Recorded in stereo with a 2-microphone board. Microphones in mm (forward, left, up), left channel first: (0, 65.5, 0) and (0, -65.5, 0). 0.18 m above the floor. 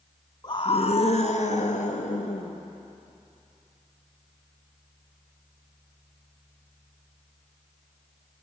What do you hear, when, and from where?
0.4 s a scream: 35° left (ahead or behind), 1.3 m; by 2.6 s 65° left (ahead or behind), 3.5 m